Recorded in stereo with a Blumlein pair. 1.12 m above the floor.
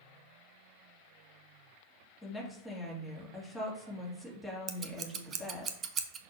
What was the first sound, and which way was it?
A woman speaking, 10° left.